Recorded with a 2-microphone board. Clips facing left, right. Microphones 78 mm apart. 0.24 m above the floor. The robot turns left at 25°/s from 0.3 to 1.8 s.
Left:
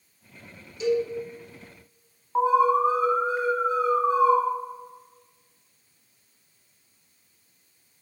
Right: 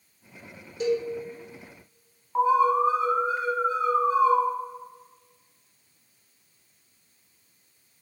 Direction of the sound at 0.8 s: 60° right (ahead or behind).